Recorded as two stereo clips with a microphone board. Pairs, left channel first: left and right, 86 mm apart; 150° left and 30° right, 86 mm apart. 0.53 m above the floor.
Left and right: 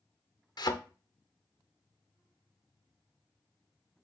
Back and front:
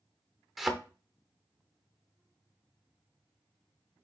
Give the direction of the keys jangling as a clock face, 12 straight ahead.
No keys jangling in this recording.